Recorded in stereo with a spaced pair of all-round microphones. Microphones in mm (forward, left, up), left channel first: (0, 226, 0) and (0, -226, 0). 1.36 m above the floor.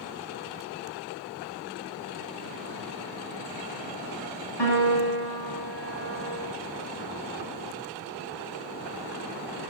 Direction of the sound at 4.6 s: 65° left (ahead or behind).